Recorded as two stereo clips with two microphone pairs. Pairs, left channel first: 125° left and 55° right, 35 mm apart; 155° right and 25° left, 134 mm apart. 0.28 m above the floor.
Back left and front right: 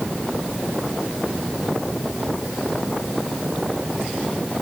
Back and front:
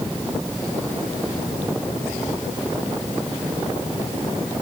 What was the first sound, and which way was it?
Only background noise.